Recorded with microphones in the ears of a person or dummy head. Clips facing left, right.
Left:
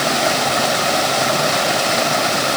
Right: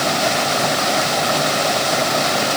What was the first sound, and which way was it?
Only background noise.